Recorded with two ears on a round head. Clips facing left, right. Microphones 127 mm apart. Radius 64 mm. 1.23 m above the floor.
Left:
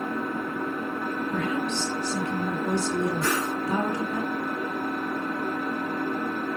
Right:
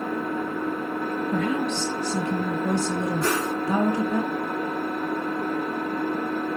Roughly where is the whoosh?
Right.